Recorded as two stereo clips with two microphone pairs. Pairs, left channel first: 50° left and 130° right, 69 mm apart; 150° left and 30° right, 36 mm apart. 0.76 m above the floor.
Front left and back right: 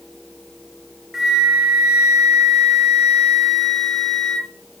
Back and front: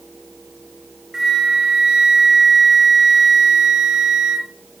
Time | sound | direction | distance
1.1 | a flute | 60° right | 1.0 m